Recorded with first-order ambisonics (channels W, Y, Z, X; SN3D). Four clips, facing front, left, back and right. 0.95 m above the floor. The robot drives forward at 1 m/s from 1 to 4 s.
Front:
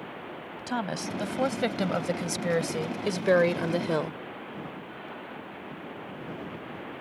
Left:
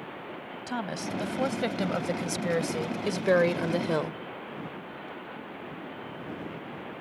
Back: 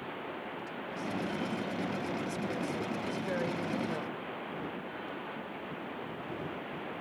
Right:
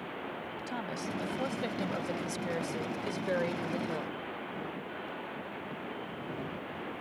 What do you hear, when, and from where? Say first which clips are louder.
0.7 s a woman speaking: left 6 dB, front 10 dB; 25° left; by 4.2 s 45° left